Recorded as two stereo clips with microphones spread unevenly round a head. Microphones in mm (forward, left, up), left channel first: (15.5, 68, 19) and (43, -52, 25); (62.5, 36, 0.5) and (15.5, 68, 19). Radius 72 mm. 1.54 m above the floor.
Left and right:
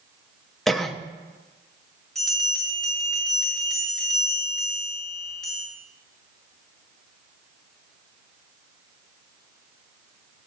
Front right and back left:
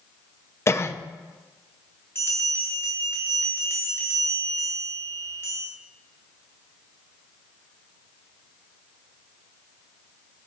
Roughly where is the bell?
Ahead.